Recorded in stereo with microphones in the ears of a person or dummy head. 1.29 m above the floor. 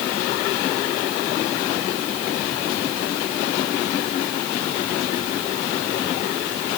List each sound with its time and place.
Only background noise.